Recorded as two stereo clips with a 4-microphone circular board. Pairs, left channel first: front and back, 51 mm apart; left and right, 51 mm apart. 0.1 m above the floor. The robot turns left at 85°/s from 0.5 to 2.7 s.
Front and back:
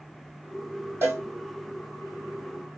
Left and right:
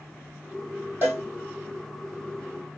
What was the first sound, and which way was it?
A cowbell, 140° right.